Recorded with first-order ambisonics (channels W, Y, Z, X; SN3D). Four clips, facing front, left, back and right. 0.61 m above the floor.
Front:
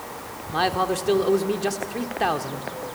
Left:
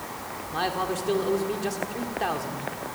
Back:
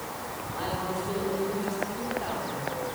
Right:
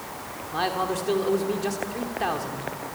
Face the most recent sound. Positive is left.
turn(degrees=-5)